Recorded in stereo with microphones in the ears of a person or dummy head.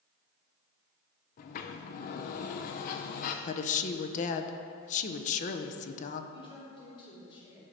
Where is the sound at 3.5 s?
35° left (ahead or behind), 0.7 m.